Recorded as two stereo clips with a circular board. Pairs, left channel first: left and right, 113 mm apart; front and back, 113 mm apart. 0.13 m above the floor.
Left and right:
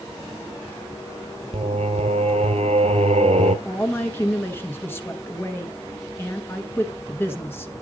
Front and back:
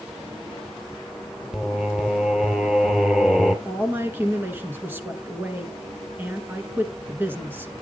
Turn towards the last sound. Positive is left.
turn(degrees=135)